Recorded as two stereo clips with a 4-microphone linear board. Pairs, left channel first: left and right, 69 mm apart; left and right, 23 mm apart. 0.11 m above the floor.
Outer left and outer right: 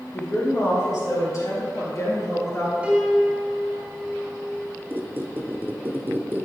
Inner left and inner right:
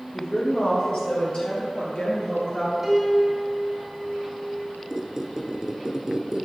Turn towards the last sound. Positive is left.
turn(degrees=-30)  # may be behind; listen again after turning